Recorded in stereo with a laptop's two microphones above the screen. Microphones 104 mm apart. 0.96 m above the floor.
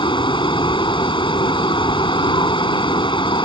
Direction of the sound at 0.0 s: 50° left (ahead or behind).